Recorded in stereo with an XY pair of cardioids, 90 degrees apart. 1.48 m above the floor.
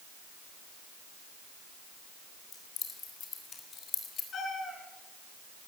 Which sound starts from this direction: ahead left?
Keys jangling, at 2.5 s.